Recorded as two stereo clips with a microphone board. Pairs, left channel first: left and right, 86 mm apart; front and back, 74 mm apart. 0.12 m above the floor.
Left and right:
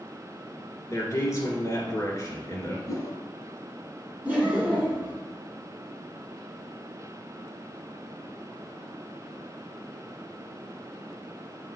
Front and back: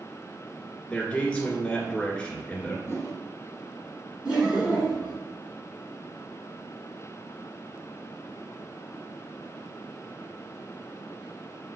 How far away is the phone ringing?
No phone ringing in this recording.